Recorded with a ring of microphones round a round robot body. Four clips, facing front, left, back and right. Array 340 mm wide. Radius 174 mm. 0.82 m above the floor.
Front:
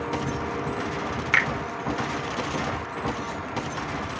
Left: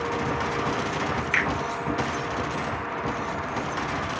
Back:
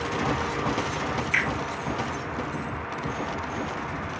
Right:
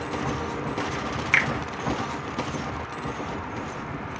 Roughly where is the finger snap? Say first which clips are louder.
Right 3 dB, front 6 dB; ahead right.